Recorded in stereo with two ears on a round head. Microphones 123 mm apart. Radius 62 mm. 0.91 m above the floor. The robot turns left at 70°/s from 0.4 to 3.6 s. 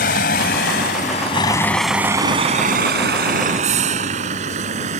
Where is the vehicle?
75° left (ahead or behind); by 5.0 s 55° right (ahead or behind).